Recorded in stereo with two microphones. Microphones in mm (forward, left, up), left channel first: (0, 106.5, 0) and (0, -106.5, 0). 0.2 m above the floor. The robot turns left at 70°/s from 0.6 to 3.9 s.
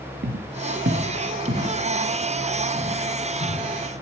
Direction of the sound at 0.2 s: 55° right (ahead or behind).